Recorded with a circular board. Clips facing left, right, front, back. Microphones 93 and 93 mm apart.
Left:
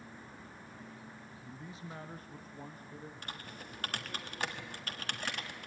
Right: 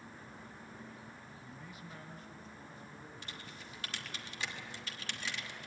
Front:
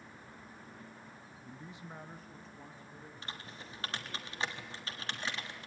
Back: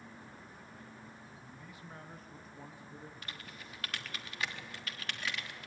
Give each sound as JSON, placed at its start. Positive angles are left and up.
{"t": 1.4, "sound": "a man speaking", "azimuth_deg": 30, "distance_m": 0.9}
{"t": 3.2, "sound": "typing on a keyboard", "azimuth_deg": 60, "distance_m": 1.3}